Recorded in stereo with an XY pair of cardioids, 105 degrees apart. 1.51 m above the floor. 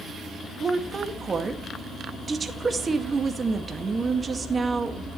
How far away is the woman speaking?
About 2 m.